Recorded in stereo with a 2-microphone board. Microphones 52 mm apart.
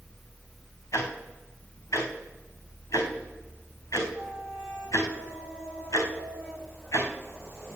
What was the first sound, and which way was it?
Ticking, 75° left (ahead or behind).